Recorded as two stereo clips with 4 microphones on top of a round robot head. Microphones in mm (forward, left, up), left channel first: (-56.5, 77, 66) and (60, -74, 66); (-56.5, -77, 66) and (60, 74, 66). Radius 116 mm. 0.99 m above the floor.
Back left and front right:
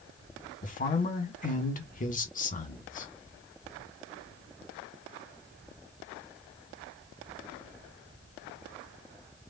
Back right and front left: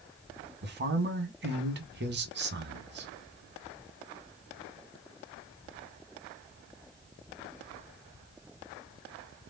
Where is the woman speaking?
80° left, 1.7 m.